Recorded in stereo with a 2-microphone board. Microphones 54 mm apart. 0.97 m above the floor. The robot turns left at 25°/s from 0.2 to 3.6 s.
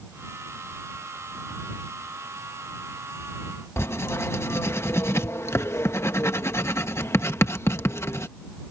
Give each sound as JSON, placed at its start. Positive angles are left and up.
{"t": 3.8, "sound": "writing", "side_deg": 55}